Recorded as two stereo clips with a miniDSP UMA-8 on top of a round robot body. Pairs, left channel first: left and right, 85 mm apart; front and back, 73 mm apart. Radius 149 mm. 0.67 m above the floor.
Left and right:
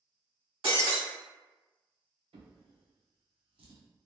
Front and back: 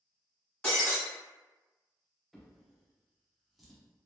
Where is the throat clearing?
I don't hear throat clearing.